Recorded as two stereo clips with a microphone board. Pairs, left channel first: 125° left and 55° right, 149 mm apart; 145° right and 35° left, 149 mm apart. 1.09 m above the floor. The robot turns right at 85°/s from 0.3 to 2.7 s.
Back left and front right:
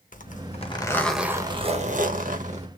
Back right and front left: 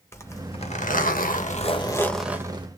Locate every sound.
0.1 s a zipper: 145° left, 1.4 m; by 2.7 s 15° right, 1.4 m